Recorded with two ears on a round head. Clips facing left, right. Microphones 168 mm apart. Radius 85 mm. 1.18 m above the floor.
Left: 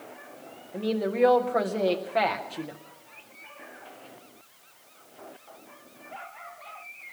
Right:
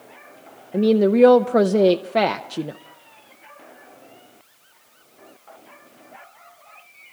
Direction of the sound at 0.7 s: 50° right (ahead or behind).